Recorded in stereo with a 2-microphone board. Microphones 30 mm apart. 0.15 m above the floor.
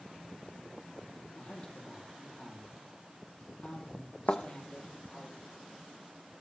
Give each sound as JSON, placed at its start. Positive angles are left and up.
{"t": 1.4, "sound": "a man speaking", "side_deg": 45, "distance_m": 6.0}
{"t": 4.3, "sound": "a thud", "side_deg": 75, "distance_m": 1.4}